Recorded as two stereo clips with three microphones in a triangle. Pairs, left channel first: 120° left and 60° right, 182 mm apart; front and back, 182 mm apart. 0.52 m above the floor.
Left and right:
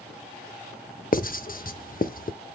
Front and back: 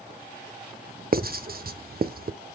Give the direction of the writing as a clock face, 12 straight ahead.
7 o'clock.